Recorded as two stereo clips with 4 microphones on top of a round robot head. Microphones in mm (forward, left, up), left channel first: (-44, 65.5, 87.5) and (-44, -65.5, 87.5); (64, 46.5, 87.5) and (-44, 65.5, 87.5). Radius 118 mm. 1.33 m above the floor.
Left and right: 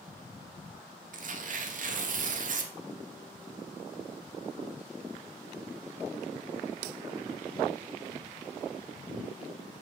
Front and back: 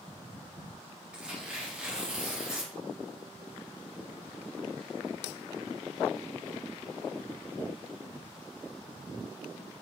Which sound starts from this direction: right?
Tearing paper, at 1.1 s.